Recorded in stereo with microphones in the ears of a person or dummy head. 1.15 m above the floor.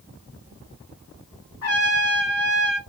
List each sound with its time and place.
1.6 s a trumpet: 70° left (ahead or behind), 1.3 m